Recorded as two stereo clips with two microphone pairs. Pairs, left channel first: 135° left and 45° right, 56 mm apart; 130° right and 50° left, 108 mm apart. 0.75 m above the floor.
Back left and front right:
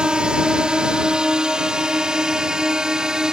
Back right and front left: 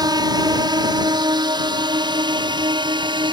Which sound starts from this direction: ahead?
A drone, at 0.0 s.